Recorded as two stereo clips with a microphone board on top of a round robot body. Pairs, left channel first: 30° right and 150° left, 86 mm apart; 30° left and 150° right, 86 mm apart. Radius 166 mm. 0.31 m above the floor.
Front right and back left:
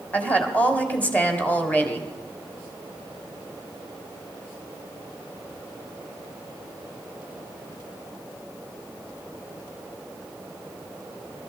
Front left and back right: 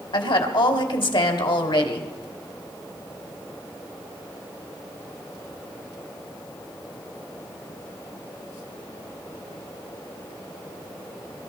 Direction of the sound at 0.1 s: 40° left.